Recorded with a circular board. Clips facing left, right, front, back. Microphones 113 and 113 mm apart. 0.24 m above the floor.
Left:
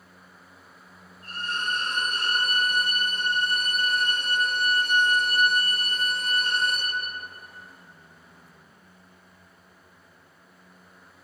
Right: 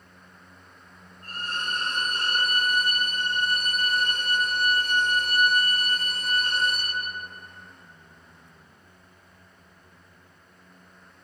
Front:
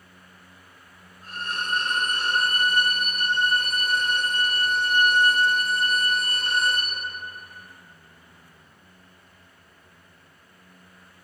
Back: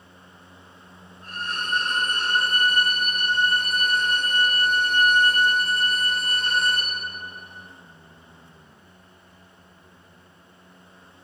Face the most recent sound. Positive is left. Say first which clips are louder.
# left 2 dB, even
turn(degrees=-80)